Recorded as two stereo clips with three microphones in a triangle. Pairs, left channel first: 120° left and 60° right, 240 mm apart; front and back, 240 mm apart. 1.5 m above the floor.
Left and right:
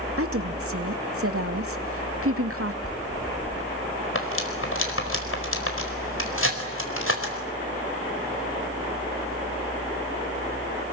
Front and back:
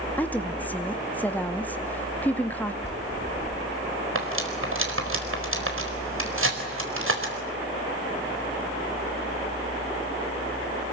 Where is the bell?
100° left, 6 m.